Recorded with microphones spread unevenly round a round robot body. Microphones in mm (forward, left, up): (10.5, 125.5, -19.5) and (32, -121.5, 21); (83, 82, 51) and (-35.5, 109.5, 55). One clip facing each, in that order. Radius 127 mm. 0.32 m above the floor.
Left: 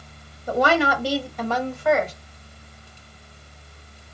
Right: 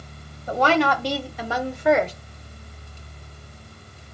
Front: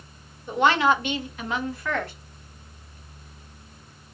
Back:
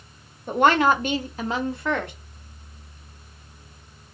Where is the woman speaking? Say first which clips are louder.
Even, back 2 dB; 155° left, 1.2 m; by 2.1 s 135° right, 1.0 m.